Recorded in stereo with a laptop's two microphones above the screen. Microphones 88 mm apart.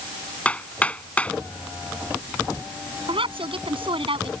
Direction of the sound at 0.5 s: 15° left (ahead or behind).